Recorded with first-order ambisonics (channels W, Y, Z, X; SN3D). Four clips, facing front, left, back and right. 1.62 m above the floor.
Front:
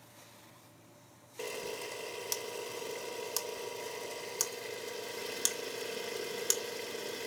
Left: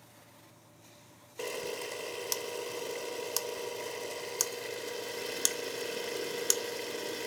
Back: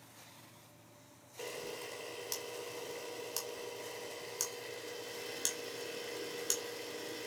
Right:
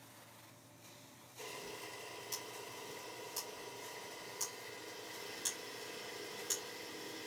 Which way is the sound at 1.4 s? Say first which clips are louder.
Left 11 dB, front 4 dB; 70° left.